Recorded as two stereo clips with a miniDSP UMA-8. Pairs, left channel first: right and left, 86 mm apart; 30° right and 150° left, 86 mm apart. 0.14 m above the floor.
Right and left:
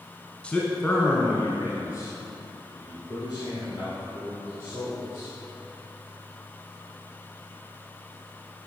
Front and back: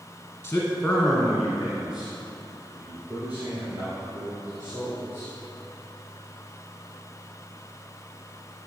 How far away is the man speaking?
About 1.3 m.